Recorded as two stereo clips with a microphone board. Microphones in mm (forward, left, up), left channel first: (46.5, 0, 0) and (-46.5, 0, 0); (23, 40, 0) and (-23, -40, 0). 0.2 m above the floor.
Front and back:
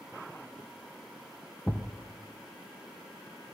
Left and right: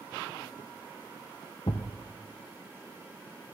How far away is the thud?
About 0.8 m.